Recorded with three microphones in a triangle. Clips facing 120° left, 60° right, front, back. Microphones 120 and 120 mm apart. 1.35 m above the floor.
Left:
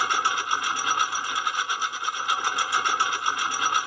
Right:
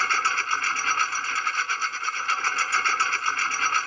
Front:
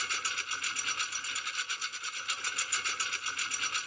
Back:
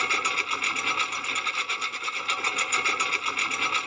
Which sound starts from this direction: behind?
A lawn mower, at 0.0 s.